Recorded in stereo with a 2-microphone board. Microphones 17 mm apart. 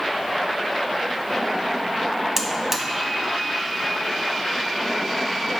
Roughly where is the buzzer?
Right.